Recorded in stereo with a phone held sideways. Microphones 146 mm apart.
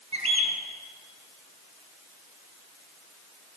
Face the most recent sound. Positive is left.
turn(degrees=-45)  # may be behind; listen again after turning